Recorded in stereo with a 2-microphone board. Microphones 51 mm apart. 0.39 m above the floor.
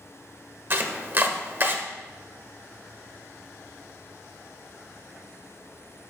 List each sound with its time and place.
0.7 s chopping: 45° right (ahead or behind), 1.1 m